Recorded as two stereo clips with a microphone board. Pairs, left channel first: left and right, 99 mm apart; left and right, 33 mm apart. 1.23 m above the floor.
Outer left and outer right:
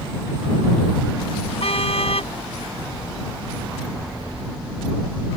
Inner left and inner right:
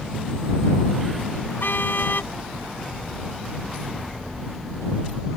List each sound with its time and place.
1.6 s a car horn: 85° left